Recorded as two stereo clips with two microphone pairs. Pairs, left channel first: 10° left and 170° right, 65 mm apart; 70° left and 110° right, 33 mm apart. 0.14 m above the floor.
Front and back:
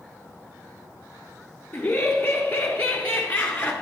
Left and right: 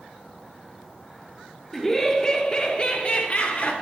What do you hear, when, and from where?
1.7 s laughter: straight ahead, 1.3 m; by 3.7 s 70° left, 1.9 m